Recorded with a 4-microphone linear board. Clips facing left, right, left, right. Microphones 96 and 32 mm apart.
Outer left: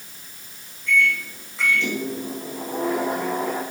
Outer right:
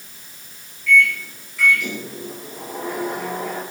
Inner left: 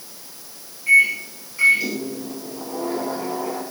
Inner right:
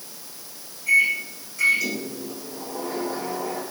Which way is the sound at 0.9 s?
30° left (ahead or behind).